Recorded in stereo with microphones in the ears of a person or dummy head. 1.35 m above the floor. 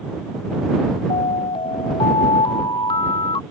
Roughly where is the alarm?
Left.